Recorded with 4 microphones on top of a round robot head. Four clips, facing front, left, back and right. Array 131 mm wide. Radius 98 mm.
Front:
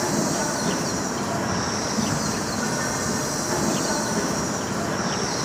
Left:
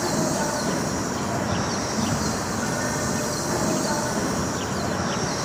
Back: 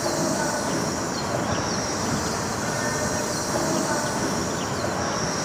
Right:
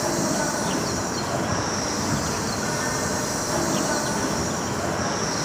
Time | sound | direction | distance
0.0 | an insect | 5° left | 4 m